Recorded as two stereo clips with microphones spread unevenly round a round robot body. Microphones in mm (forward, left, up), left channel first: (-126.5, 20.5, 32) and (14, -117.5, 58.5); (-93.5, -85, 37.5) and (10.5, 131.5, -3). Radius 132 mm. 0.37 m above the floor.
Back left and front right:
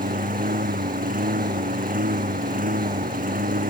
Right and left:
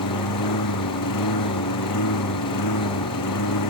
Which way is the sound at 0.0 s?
90° right.